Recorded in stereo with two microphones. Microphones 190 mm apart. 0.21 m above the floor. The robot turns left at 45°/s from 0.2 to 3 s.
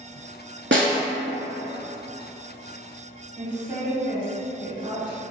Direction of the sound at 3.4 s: 20° right (ahead or behind).